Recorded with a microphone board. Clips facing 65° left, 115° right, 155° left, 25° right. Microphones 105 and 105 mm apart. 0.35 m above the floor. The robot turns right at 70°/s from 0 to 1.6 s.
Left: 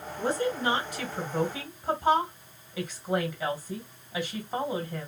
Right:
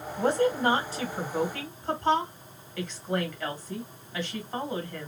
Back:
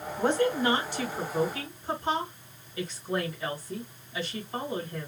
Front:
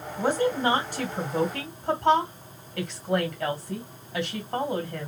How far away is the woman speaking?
About 3 m.